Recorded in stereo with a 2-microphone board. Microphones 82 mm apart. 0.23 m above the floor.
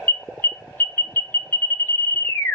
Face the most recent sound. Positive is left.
turn(degrees=25)  # may be behind; listen again after turning